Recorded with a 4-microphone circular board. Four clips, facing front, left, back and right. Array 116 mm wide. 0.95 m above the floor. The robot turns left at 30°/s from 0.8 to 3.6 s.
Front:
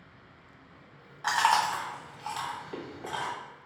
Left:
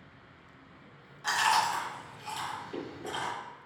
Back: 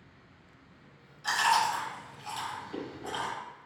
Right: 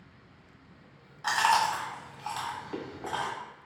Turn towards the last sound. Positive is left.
turn(degrees=-80)